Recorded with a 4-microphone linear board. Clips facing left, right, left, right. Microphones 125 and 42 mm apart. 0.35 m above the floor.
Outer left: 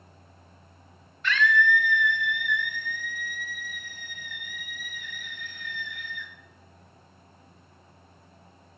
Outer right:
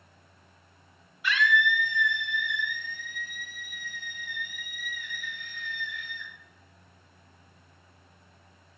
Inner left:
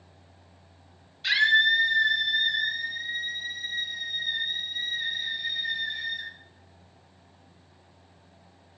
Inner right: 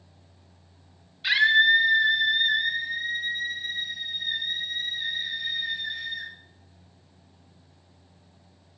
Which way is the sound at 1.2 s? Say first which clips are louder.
Outer left 2 dB, inner right 2 dB; 10° right (ahead or behind).